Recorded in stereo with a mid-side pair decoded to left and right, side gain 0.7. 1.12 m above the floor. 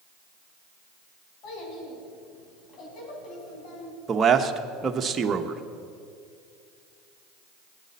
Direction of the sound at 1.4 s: 55° left.